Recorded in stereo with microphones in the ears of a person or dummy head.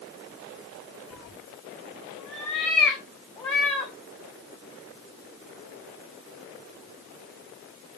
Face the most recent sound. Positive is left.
turn(degrees=5)  # may be behind; listen again after turning